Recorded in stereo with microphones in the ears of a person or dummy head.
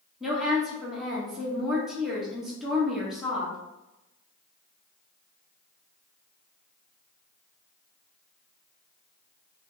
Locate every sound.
0.2 s a woman speaking: centre (ahead or behind), 1.2 m